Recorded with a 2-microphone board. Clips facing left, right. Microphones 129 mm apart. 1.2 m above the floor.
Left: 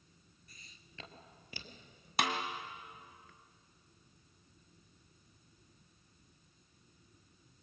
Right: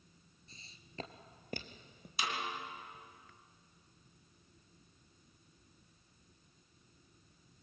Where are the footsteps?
25° right (ahead or behind), 1.3 m; by 2.1 s 55° right (ahead or behind), 2 m.